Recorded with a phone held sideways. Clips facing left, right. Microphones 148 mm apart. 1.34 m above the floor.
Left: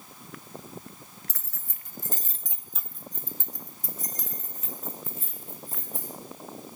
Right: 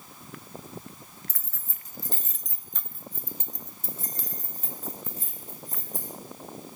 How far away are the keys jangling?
About 0.7 m.